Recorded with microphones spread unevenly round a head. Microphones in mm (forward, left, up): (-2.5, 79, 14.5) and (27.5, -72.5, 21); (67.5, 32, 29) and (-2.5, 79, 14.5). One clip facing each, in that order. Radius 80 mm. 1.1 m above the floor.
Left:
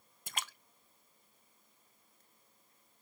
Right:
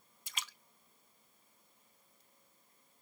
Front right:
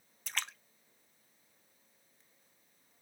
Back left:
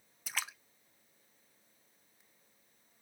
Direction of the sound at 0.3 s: 65° left.